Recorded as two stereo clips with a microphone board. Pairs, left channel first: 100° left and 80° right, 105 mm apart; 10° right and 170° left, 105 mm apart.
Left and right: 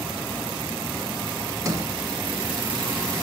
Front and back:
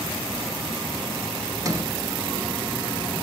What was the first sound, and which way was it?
A sliding door, 135° right.